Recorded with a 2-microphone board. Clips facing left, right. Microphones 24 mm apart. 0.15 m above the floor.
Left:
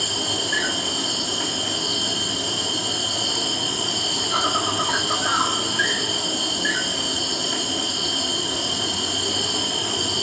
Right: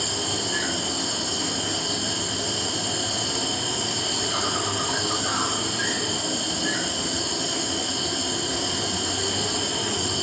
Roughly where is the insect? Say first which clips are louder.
Left 3 dB; left.